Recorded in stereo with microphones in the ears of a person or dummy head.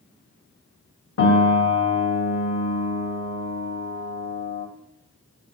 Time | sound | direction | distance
1.2 | a piano | 70° left (ahead or behind) | 1.6 m